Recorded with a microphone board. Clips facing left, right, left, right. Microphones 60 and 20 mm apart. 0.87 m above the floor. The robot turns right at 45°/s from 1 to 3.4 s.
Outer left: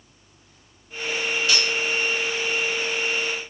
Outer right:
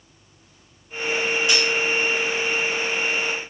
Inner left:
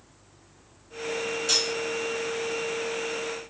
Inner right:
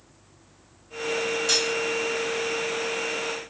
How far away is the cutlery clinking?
About 1.3 m.